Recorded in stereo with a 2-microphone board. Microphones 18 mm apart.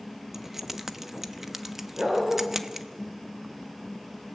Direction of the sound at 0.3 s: 15° right (ahead or behind).